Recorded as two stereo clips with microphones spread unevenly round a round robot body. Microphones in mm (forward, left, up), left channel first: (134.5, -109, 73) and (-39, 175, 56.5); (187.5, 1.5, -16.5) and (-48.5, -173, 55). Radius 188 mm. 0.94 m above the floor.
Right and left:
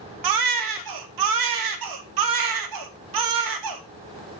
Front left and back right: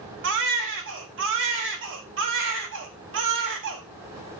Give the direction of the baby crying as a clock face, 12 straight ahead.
7 o'clock.